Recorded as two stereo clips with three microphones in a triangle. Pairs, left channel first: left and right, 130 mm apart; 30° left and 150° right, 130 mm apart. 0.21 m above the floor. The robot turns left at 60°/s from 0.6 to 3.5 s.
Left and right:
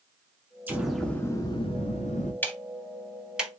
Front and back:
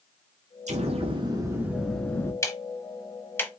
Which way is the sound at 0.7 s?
165° right.